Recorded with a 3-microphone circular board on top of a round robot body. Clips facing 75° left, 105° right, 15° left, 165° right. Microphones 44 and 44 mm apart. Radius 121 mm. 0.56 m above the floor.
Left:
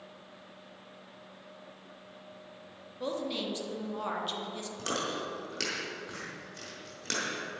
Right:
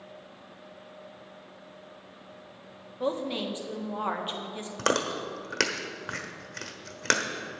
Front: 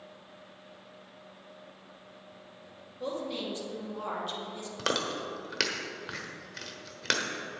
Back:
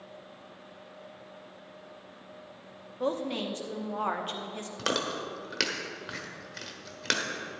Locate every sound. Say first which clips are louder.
3.0 s a woman speaking: right 4 dB, back 4 dB; 160° right, 1.7 m
4.8 s chewing: right 7 dB, even; 75° right, 1.1 m